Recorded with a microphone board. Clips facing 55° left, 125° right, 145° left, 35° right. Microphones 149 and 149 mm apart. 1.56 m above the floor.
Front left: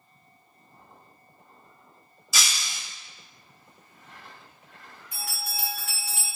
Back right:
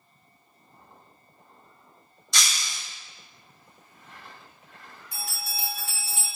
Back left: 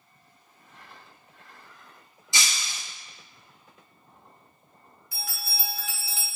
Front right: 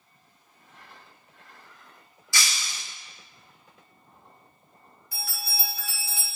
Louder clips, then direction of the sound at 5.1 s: Front left 1 dB, front right 1 dB; 75° right.